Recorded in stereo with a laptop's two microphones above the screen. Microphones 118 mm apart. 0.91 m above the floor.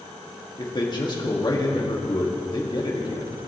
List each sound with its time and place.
0.6 s a man speaking: 35° left (ahead or behind), 1.9 m